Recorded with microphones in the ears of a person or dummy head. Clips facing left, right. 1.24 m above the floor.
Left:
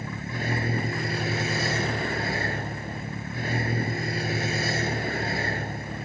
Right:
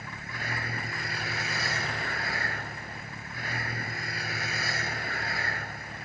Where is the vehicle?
20° left (ahead or behind).